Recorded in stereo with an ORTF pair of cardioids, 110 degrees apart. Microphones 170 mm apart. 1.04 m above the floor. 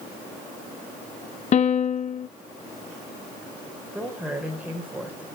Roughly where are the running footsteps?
No running footsteps in this recording.